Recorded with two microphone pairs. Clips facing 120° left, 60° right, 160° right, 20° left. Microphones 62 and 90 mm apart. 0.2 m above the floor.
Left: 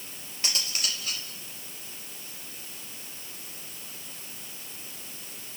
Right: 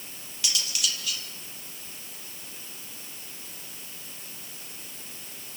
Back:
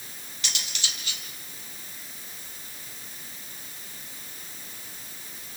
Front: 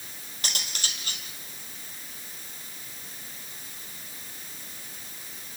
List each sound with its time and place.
0.4 s cutlery clinking: 65° left, 3.5 m